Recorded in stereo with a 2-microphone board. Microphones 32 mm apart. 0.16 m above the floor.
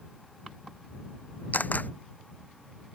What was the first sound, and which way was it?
A camera shutter, 65° left (ahead or behind).